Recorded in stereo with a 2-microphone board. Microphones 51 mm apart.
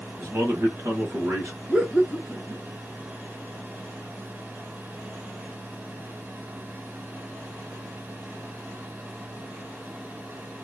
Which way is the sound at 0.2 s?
45° right (ahead or behind).